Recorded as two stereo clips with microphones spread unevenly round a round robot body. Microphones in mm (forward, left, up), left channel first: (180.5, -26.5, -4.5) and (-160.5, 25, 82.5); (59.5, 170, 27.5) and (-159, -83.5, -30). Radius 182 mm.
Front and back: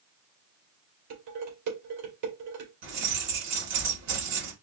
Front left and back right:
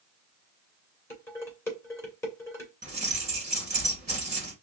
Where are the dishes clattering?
130° left, 2.5 m.